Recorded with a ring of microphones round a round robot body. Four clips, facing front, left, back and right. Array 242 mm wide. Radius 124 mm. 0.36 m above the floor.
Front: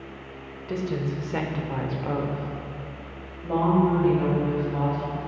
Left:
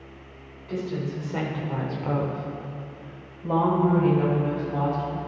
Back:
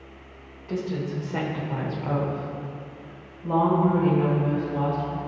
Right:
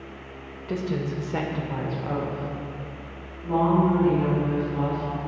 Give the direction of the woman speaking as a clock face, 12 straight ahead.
2 o'clock.